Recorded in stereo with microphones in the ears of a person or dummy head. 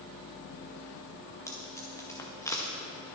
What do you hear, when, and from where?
1.5 s tape being pulled: 20° left (ahead or behind), 1.8 m